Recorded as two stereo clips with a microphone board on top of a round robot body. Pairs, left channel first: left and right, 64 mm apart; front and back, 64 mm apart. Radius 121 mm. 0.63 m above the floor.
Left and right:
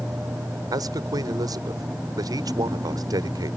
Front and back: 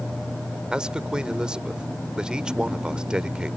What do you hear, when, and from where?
0.7 s a man speaking: 105° right